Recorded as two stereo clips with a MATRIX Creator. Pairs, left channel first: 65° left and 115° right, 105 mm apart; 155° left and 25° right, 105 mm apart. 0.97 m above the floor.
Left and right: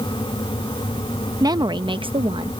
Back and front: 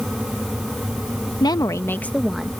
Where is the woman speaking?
160° right; by 2.5 s 100° right.